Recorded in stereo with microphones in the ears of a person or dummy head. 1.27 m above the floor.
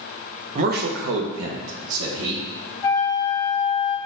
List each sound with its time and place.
0.6 s a man speaking: 40° right (ahead or behind), 0.7 m; by 2.5 s 70° right (ahead or behind), 1.3 m
2.8 s a flute: 20° left (ahead or behind), 1.5 m